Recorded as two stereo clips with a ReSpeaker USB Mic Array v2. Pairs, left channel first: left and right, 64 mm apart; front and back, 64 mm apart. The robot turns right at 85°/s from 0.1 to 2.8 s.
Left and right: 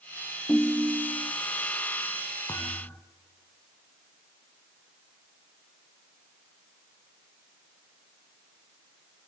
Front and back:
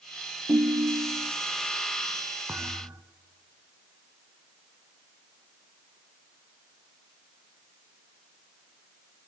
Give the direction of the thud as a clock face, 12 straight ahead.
8 o'clock.